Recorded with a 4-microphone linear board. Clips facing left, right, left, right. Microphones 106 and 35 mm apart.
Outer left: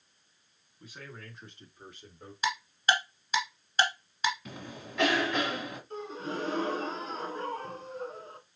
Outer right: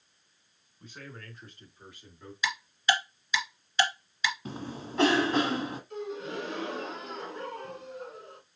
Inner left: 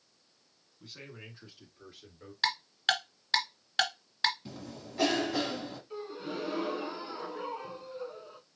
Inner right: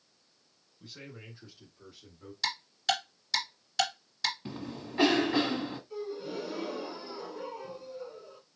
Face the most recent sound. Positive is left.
turn(degrees=40)  # may be behind; listen again after turning